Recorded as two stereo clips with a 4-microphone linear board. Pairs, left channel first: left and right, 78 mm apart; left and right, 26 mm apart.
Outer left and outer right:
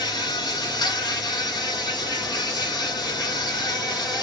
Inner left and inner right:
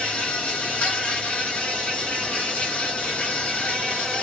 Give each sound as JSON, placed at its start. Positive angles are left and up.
{"t": 0.0, "sound": "an insect", "side_deg": 60, "distance_m": 1.5}